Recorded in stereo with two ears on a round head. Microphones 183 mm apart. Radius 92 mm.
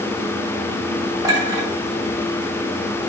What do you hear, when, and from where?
1.2 s a clink: 20° right (ahead or behind), 1.7 m